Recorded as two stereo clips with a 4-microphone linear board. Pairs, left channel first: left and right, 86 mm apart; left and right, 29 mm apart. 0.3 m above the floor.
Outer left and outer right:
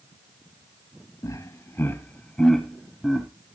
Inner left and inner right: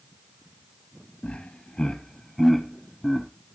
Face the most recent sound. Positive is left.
turn(degrees=-10)  # may be behind; listen again after turning